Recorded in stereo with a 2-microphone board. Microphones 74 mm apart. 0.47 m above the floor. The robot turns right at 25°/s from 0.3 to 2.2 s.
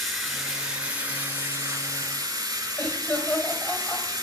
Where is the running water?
175° right, 3 m; by 4.2 s 130° right, 3 m.